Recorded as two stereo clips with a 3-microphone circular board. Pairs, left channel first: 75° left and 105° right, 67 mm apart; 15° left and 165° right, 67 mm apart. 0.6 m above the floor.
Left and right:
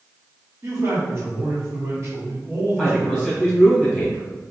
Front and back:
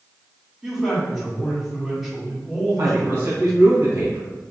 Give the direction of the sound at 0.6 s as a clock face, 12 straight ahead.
3 o'clock.